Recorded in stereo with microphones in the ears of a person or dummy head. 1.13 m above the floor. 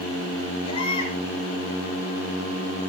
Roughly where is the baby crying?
Left.